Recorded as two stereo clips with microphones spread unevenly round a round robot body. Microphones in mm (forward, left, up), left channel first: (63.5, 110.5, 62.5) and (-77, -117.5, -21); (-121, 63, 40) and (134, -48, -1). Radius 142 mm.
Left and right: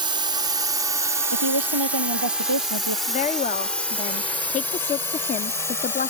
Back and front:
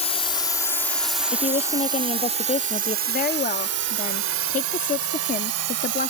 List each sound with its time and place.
0.0 s a drone: 140° right; by 6.1 s 30° right
1.3 s a woman speaking: 135° right
3.1 s a woman speaking: 125° left